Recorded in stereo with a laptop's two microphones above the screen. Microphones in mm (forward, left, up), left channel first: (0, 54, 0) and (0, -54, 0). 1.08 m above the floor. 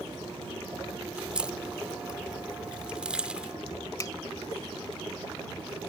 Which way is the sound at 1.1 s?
10° right (ahead or behind).